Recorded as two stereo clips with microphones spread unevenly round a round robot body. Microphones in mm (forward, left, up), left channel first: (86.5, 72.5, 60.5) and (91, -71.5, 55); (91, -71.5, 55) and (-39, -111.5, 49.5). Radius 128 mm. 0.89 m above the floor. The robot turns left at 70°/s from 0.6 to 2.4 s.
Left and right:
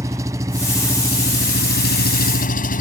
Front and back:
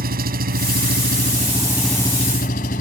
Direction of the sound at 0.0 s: 165° right.